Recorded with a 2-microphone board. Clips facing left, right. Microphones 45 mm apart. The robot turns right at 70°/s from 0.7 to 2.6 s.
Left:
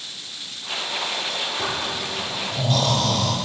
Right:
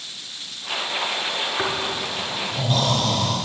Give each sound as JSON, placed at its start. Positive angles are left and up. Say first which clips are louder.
{"t": 1.6, "sound": "snoring", "louder": "right 2 dB", "azimuth_deg": -95, "distance_m": 5.0}